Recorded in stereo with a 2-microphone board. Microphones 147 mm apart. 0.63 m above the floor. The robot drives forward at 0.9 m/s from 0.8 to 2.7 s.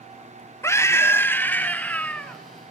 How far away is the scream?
About 1.1 m.